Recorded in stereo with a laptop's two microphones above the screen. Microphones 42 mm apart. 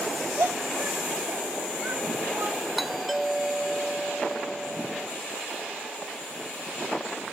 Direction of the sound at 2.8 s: Centre (ahead or behind).